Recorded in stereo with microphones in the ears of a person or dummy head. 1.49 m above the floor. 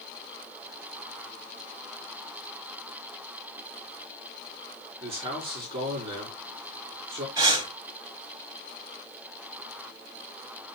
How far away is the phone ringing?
I don't hear a phone ringing.